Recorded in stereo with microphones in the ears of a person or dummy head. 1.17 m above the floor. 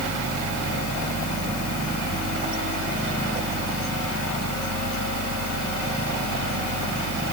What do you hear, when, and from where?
0.0 s a fan: 75° right (ahead or behind)